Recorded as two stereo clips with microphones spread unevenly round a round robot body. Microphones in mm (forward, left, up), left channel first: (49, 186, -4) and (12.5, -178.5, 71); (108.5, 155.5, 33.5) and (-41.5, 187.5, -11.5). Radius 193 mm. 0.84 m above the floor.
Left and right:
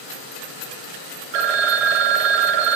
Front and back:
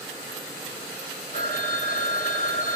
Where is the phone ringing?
85° right, 1.0 m.